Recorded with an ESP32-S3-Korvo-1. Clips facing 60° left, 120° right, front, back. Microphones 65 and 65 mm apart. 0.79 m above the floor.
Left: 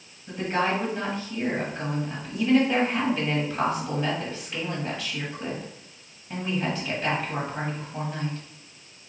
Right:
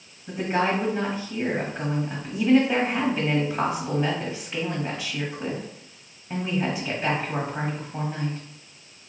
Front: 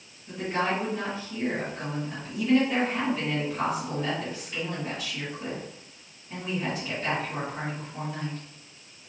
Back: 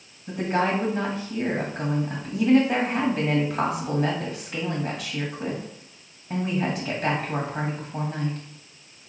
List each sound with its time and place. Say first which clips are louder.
0.3 s a woman speaking: right 2 dB, back 4 dB; 155° left, 1.3 m